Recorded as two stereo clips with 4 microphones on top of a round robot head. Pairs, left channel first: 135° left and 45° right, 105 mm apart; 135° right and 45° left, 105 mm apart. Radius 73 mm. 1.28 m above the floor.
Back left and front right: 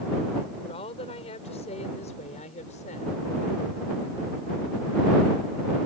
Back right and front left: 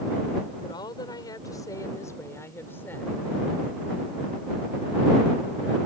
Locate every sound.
0.6 s a woman speaking: 170° left; by 3.1 s 150° left